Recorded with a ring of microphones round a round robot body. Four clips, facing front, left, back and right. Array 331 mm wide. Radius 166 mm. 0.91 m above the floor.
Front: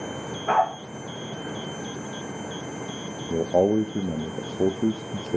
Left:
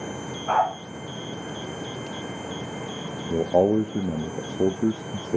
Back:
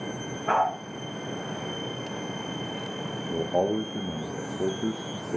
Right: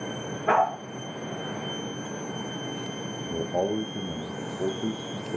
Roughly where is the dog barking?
Right.